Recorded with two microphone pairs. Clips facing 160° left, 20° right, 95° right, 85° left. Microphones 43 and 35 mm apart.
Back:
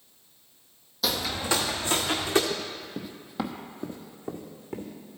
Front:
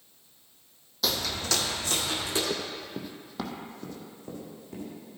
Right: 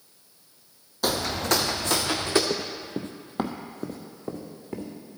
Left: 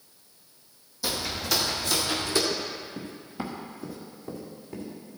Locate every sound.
1.0 s footsteps: 110° right, 0.7 m; by 2.4 s 140° right, 1.5 m
2.5 s running footsteps: 80° right, 0.9 m; by 4.9 s 145° right, 2 m